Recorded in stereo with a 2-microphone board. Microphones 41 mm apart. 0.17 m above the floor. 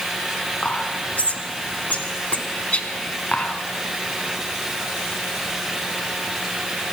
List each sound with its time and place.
0.6 s whispering: 35° left (ahead or behind), 1.3 m